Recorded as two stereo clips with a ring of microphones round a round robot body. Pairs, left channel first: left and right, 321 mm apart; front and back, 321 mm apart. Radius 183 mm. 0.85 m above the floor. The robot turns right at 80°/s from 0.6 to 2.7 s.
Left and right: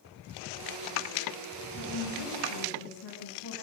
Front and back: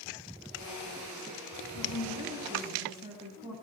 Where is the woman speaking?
25° left, 7 m; by 3.5 s 100° left, 7 m.